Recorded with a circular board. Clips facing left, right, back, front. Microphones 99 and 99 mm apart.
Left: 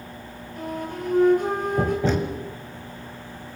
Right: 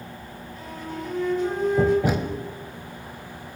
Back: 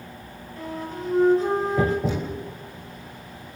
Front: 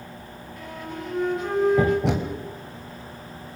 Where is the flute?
125° left, 5.5 m.